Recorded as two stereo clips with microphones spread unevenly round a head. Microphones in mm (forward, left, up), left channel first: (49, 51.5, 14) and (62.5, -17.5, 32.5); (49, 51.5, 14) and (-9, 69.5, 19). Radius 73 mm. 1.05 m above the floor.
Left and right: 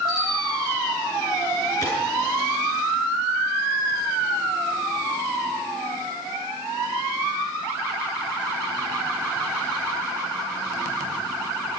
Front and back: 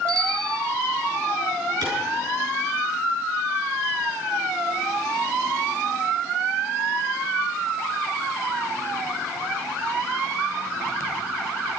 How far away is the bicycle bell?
About 4.5 m.